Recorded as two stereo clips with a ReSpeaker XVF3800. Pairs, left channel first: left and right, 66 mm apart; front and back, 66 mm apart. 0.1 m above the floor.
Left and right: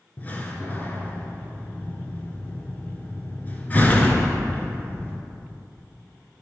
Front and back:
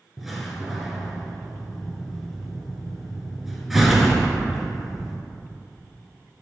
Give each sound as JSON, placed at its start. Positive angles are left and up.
{"t": 0.2, "sound": "a door slam", "azimuth_deg": 95, "distance_m": 0.8}